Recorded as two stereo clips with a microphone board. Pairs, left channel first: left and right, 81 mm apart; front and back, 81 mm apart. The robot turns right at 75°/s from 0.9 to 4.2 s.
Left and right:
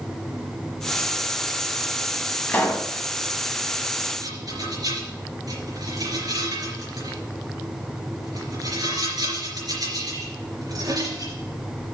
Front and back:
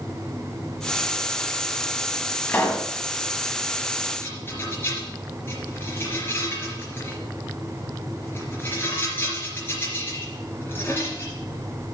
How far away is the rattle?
About 3.5 m.